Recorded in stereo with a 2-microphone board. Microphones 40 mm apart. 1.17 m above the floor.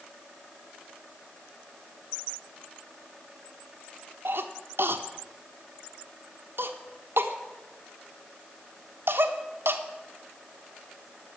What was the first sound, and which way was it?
A cough, 65° right (ahead or behind).